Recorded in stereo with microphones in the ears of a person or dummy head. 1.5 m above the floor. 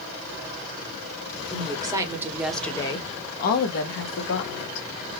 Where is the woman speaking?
30° right (ahead or behind), 1.0 m; by 4.9 s 80° left, 1.2 m.